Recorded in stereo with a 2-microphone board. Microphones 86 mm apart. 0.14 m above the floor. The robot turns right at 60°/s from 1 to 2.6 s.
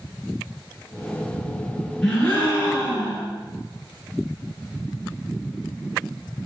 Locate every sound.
2.0 s a gasp: 5° left, 1.7 m; by 3.3 s 40° left, 1.7 m